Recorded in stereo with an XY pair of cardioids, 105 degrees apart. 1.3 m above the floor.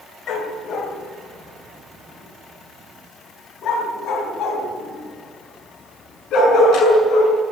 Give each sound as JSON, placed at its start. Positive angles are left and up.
{"t": 0.3, "sound": "a dog barking", "azimuth_deg": 65, "distance_m": 2.5}